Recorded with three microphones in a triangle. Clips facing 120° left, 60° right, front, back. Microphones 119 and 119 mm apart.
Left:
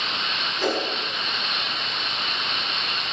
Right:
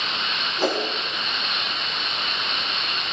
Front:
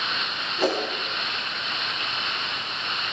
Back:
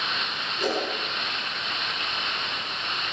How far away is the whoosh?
About 5 m.